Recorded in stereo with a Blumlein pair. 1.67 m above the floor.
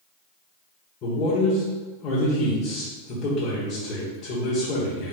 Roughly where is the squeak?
No squeak in this recording.